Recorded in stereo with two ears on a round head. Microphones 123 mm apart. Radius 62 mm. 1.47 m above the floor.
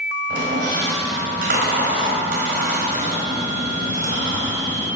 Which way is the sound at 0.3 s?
75° right (ahead or behind).